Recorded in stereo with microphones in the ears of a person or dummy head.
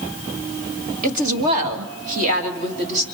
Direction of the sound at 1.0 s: 50° right (ahead or behind).